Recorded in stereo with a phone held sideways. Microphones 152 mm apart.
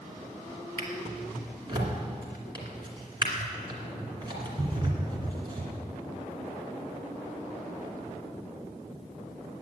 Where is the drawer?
35° right (ahead or behind), 2.5 m.